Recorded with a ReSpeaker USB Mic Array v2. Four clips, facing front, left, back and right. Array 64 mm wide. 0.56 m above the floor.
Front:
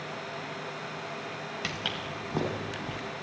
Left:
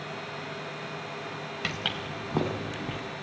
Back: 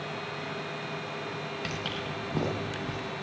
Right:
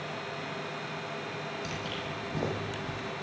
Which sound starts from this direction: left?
Footsteps, at 1.6 s.